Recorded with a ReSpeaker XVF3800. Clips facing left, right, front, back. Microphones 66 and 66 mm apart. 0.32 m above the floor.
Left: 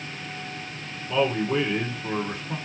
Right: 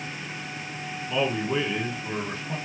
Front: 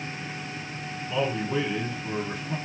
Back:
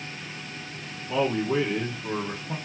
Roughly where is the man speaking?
Behind.